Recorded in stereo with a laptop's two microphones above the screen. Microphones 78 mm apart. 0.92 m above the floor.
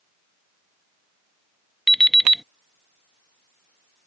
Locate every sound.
1.9 s an alarm clock: 5° left (ahead or behind)